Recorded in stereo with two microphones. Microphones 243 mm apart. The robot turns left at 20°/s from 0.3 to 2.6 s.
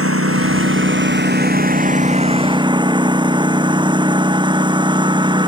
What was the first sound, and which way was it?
A lawn mower, 115° right.